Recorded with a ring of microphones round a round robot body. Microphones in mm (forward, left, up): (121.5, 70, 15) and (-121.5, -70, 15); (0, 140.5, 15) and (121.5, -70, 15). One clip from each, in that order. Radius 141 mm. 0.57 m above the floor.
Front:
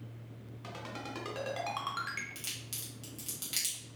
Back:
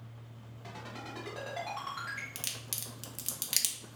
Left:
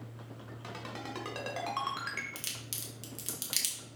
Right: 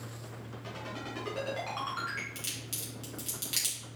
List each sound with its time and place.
0.6 s a ringtone: 90° left, 1.8 m
2.4 s a crack: straight behind, 0.8 m